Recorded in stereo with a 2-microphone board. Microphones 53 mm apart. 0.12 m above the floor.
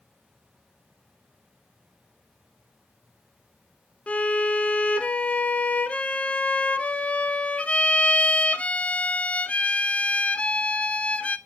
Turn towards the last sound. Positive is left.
turn(degrees=25)  # may be behind; listen again after turning